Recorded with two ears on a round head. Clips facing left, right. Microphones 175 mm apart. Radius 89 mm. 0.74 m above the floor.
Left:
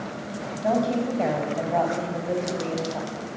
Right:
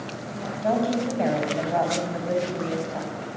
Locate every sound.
0.6 s a woman speaking: 5° right (ahead or behind), 5.5 m